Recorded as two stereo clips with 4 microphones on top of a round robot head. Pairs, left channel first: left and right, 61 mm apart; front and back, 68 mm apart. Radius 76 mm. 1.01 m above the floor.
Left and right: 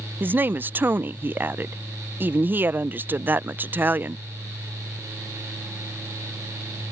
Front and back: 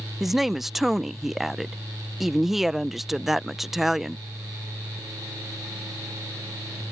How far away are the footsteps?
No footsteps in this recording.